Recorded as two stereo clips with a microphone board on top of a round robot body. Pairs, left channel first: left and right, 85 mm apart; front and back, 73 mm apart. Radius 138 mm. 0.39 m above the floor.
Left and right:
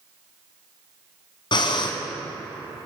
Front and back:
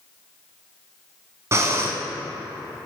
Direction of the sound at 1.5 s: 125° left.